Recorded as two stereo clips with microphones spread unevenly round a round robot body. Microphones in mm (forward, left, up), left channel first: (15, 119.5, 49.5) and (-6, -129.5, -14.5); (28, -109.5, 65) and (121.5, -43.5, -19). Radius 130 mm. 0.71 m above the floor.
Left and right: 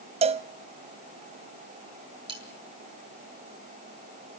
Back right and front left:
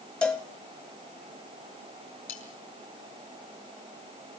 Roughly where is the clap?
No clap in this recording.